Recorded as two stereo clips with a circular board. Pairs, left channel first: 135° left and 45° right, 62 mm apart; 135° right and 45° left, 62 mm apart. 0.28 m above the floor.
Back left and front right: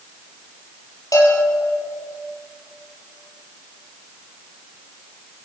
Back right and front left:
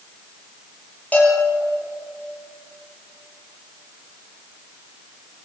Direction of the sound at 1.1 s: 160° left.